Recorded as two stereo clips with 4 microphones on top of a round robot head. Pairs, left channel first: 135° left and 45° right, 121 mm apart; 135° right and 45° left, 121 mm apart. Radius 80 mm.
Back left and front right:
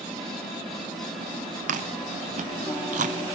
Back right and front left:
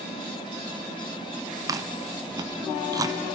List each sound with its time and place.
1.7 s chewing: 20° right, 0.7 m